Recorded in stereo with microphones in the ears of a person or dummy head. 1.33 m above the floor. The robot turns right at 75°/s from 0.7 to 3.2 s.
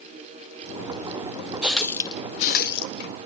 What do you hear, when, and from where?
1.6 s a running tap: centre (ahead or behind), 0.7 m; by 3.1 s 55° left (ahead or behind), 0.7 m